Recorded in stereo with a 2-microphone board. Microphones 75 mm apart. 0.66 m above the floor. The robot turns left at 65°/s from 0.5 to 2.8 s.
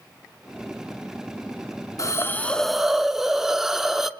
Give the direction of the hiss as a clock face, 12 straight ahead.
10 o'clock.